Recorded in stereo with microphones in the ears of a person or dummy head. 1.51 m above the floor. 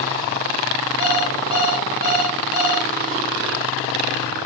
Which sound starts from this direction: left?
An alarm clock, at 1.0 s.